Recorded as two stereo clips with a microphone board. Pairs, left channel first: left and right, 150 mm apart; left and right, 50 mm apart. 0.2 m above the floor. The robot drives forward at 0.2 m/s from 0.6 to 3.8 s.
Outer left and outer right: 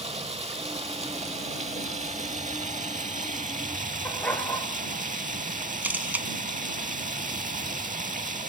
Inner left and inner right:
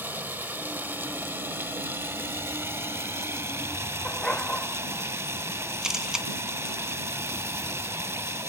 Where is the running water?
45° right (ahead or behind), 1.7 m; by 8.5 s 60° right (ahead or behind), 1.3 m.